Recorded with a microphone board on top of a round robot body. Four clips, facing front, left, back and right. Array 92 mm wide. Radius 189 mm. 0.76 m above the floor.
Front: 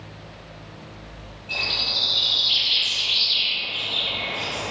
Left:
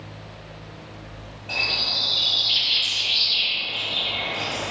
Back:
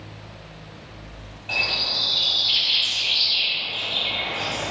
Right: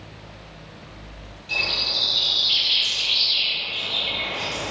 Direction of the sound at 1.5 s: 150° left.